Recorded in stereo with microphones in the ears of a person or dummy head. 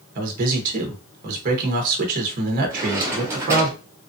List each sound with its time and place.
0.1 s a man speaking: 50° right (ahead or behind), 1.0 m
2.7 s a drawer: 15° right (ahead or behind), 0.9 m